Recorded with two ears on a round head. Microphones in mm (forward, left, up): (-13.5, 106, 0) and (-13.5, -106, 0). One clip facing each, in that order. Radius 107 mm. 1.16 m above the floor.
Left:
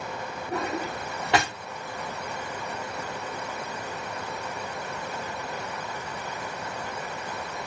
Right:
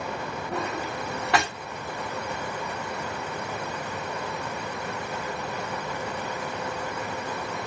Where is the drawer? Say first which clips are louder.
Left 2 dB; 20° left (ahead or behind), 1.0 m.